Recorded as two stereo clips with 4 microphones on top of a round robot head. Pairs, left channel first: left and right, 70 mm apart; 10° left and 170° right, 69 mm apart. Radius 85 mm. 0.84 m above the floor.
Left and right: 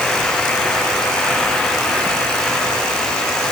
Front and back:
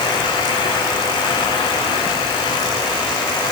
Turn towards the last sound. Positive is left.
No sound to turn to.